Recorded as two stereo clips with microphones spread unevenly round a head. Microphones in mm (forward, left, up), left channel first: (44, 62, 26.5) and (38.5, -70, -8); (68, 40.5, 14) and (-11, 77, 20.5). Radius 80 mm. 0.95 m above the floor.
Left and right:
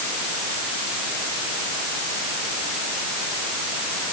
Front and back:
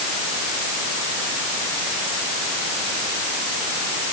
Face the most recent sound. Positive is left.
No sound to turn to.